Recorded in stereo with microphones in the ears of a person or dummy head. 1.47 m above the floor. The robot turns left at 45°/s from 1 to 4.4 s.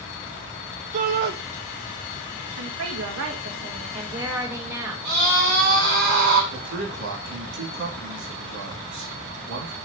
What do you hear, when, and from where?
0.9 s a shout: 45° right (ahead or behind), 0.8 m; by 1.3 s 60° right (ahead or behind), 0.8 m
2.6 s a woman speaking: 85° right, 1.8 m; by 5.0 s 165° right, 1.8 m
5.0 s a scream: 55° right (ahead or behind), 3 m
6.5 s a man speaking: 65° right (ahead or behind), 3 m